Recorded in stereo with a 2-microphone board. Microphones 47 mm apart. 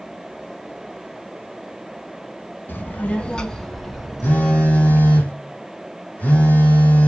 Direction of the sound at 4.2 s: 30° left (ahead or behind).